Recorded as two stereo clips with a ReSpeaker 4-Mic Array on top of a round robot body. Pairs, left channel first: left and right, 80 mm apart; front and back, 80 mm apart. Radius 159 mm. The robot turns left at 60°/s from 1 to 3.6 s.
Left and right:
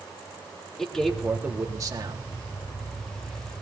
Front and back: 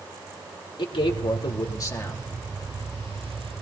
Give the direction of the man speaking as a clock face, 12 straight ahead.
12 o'clock.